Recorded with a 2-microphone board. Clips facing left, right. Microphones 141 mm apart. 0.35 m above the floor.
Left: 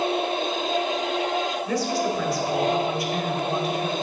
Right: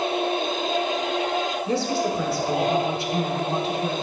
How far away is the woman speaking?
About 1.5 m.